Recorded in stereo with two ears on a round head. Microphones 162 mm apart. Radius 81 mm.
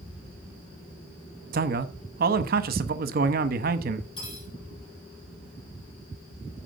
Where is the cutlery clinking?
30° left (ahead or behind), 4.5 m.